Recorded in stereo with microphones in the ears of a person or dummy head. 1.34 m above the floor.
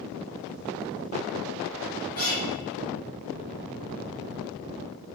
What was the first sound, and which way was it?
A guitar, 15° left (ahead or behind).